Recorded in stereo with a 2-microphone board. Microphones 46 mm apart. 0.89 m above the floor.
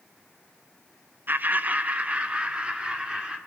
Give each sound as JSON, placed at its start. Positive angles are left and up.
{"t": 1.3, "sound": "laughter", "side_deg": -45, "distance_m": 0.5}